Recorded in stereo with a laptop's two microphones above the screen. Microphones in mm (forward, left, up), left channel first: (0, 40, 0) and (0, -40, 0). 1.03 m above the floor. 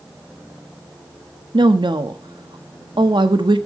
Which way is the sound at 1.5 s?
80° right.